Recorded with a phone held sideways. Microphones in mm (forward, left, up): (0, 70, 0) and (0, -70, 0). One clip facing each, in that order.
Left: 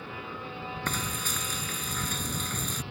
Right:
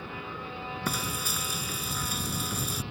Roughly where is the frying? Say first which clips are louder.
Right 2 dB; centre.